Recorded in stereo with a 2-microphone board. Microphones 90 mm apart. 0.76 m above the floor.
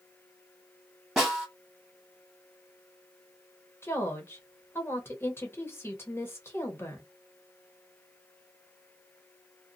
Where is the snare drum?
5° right (ahead or behind), 1.6 m.